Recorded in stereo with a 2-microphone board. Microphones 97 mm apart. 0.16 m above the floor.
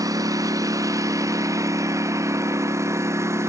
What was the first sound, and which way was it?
A lawn mower, 35° right (ahead or behind).